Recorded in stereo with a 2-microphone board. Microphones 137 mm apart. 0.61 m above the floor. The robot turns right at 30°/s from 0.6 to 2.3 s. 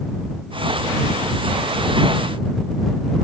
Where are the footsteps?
No footsteps in this recording.